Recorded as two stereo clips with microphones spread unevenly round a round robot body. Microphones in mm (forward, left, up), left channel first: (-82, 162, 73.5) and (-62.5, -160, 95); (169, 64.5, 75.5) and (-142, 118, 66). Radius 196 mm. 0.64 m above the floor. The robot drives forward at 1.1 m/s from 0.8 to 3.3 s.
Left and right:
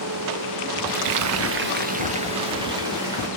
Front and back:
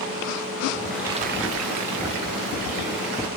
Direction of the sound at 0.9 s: 90° right.